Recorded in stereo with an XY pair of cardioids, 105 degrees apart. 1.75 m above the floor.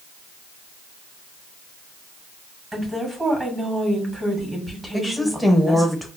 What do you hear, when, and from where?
2.7 s a woman speaking: 10° right, 2 m
4.9 s a woman speaking: 5° left, 0.8 m